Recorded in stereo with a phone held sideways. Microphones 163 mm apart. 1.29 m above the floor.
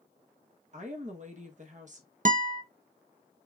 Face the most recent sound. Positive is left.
turn(degrees=-55)  # may be behind; listen again after turning